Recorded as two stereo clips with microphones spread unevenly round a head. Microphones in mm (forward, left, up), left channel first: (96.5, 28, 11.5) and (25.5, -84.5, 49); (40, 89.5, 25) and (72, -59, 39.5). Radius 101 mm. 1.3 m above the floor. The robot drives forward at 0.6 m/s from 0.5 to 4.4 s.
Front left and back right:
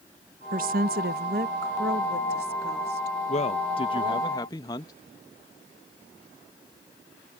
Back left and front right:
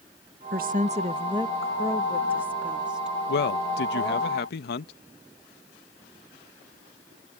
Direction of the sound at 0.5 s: 120° right.